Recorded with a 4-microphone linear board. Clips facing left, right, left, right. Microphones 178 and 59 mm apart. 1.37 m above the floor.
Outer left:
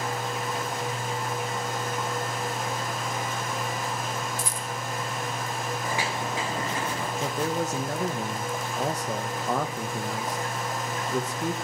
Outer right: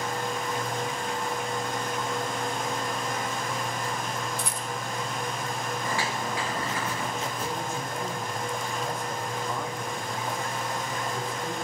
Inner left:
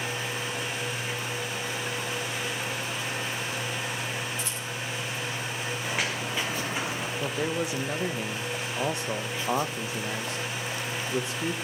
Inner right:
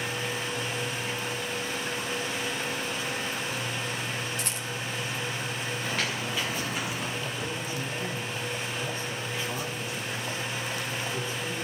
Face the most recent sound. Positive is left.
turn(degrees=85)